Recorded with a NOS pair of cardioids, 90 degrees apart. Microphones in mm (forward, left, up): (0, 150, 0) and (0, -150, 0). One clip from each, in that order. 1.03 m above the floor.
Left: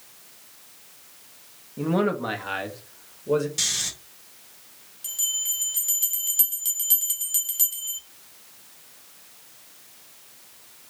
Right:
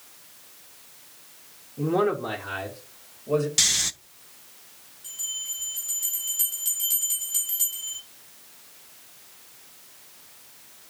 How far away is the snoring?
About 0.5 m.